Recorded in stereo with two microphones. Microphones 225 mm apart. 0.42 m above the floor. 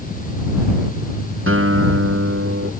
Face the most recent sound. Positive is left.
turn(degrees=-70)  # may be behind; listen again after turning